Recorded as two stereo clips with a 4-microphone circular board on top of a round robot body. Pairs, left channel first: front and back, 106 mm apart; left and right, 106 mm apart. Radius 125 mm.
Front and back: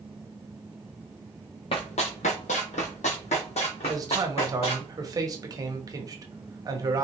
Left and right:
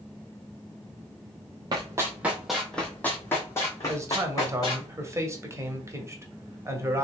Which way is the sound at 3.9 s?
145° right.